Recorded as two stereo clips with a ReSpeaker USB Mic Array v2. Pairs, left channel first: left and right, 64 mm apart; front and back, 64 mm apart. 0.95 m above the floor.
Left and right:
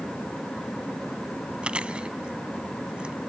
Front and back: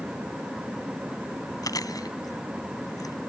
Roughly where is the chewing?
Ahead.